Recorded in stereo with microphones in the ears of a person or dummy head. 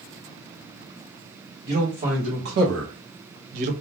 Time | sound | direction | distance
1.6 | a man speaking | 35° right (ahead or behind) | 1.4 m